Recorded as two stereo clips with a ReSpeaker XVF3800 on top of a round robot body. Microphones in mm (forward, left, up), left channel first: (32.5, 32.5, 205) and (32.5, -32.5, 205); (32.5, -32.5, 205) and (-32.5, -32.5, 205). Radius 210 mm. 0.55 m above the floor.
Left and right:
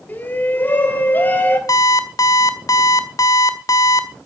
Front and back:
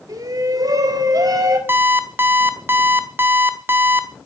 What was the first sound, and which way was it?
A shout, 150° left.